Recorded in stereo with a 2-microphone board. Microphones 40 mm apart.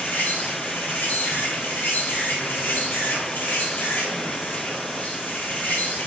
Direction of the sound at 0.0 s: 65° left (ahead or behind).